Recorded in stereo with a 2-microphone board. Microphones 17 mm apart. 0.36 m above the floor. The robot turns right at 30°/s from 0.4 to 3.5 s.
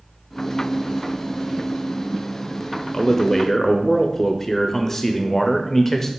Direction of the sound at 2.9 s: 20° left (ahead or behind).